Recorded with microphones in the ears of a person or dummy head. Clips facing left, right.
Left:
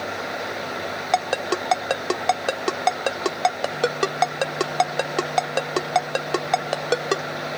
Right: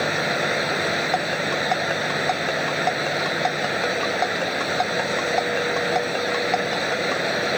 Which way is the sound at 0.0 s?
80° right.